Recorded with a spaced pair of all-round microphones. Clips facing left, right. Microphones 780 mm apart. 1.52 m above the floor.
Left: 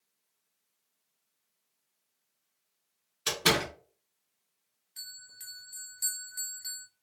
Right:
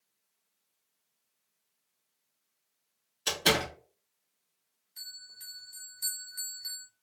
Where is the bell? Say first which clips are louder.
Left 1 dB; 35° left (ahead or behind), 0.6 m.